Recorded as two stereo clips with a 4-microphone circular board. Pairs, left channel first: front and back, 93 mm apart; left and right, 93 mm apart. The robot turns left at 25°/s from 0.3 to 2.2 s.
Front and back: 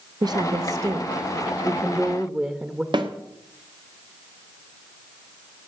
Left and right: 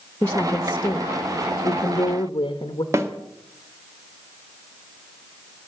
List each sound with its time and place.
0.2 s a woman speaking: 160° left, 0.9 m; by 2.8 s 110° left, 0.9 m
2.9 s a snare drum: 150° right, 1.4 m